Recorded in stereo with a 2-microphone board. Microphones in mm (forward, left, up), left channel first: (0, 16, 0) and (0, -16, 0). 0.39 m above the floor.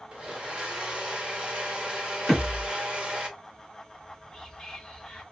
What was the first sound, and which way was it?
A blender, 35° right (ahead or behind).